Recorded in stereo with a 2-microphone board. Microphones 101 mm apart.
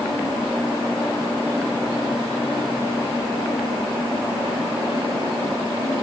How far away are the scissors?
I don't hear scissors.